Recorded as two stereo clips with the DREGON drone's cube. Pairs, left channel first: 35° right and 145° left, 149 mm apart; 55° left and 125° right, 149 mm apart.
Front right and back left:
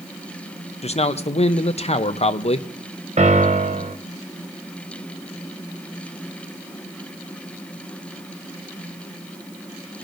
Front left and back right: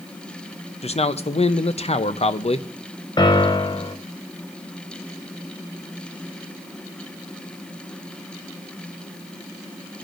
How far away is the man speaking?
About 0.6 m.